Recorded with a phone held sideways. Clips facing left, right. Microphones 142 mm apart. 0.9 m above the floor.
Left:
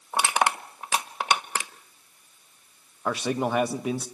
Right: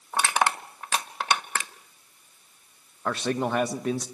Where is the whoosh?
I don't hear a whoosh.